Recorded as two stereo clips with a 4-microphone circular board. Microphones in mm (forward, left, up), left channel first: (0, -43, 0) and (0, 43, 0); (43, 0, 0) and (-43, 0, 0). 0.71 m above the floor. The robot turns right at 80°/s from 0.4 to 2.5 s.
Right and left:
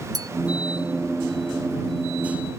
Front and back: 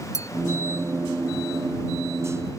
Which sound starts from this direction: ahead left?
A clink, at 0.1 s.